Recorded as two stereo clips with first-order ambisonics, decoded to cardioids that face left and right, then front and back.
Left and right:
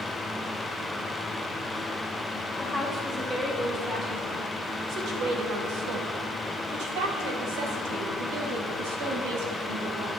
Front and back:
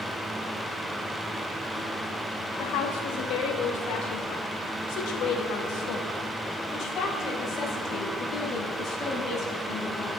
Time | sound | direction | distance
2.6 | a woman speaking | 10° right | 2.5 m